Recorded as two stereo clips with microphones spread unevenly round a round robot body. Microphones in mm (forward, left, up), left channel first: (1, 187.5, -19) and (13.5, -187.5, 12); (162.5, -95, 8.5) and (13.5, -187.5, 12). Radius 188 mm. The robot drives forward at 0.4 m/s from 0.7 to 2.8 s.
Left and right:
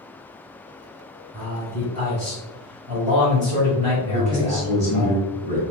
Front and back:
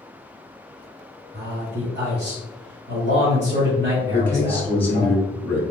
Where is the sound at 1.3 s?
155° right, 1.6 m; by 5.1 s 165° right, 2 m.